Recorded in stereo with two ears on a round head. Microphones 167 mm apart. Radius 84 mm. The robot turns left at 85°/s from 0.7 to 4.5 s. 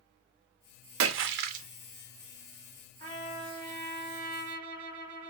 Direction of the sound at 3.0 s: 15° left.